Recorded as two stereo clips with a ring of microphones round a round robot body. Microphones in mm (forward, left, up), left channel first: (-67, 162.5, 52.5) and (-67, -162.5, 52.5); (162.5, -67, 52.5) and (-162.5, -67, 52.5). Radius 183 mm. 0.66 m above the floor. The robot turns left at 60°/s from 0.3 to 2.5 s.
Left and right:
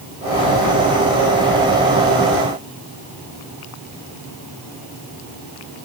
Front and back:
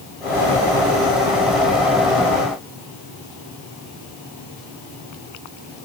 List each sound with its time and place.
Only background noise.